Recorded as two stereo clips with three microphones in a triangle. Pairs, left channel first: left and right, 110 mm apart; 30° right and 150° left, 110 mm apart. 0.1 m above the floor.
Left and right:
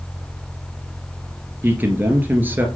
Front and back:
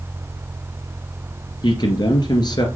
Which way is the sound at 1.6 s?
25° right.